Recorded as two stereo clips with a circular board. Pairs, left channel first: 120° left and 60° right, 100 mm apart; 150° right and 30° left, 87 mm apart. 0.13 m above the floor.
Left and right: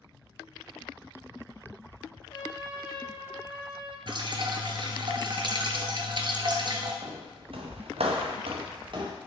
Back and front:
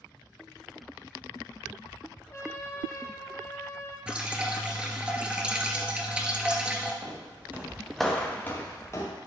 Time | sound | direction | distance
2.3 | a trumpet | 160° left | 2.5 m
4.1 | dripping | 45° right | 1.0 m
7.0 | footsteps | 15° right | 1.7 m